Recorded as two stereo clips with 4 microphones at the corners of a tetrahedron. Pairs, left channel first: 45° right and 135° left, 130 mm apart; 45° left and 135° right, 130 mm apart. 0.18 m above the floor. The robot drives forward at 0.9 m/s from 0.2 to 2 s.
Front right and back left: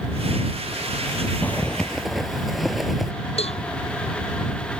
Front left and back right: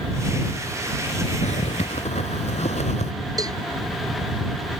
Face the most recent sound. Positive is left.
turn(degrees=-75)